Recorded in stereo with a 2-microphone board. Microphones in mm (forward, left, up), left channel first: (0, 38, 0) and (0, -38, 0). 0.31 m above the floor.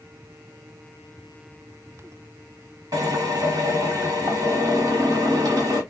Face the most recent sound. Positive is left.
turn(degrees=-55)  # may be behind; listen again after turning